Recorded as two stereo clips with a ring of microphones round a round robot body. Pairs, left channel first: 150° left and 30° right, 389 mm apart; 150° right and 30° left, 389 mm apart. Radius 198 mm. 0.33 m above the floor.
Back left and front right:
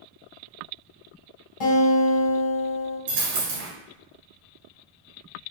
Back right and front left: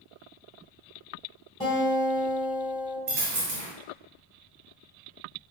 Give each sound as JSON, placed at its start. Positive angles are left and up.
{"t": 1.6, "sound": "a guitar", "azimuth_deg": 135, "distance_m": 2.0}
{"t": 3.1, "sound": "a dropped coin", "azimuth_deg": -25, "distance_m": 1.6}